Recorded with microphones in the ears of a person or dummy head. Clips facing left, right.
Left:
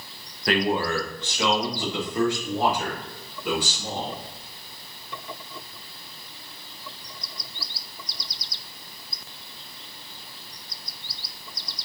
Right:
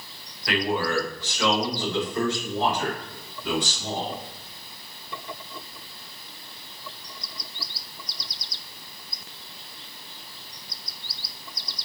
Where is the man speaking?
35° left (ahead or behind), 1.4 m; by 4.2 s 5° left (ahead or behind), 5.5 m.